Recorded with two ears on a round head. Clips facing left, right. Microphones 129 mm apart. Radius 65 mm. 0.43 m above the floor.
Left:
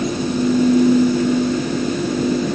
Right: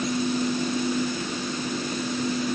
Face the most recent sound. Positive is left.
No sound to turn to.